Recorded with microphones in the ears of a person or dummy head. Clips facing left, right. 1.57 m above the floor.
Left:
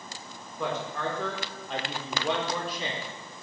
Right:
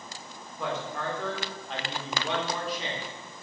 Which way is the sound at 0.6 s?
85° left.